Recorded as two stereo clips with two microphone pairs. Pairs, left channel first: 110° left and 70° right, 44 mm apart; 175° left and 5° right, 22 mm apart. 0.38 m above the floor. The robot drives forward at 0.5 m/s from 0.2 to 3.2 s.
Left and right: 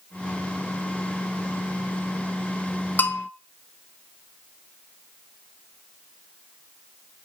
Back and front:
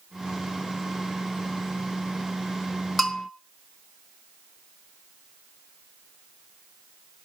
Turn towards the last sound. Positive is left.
turn(degrees=95)